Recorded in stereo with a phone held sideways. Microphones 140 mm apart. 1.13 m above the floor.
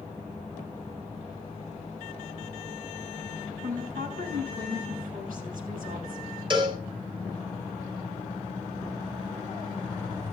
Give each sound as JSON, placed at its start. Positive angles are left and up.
{"t": 3.6, "sound": "a woman speaking", "side_deg": -80, "distance_m": 7.5}
{"t": 6.5, "sound": "a cowbell", "side_deg": -35, "distance_m": 4.5}